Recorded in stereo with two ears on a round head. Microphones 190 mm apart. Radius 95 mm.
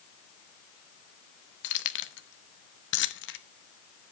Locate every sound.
1.6 s keys jangling: 60° left (ahead or behind), 0.9 m